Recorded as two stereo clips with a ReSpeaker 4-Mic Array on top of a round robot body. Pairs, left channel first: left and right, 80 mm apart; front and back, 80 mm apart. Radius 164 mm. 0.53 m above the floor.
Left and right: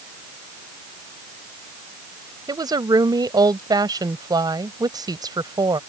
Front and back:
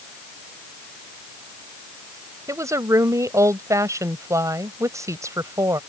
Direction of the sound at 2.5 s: 130° right.